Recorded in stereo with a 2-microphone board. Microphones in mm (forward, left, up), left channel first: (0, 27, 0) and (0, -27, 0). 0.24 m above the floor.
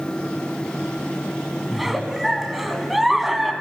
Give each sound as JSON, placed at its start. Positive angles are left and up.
{"t": 1.7, "sound": "a giggle", "side_deg": -5, "distance_m": 1.5}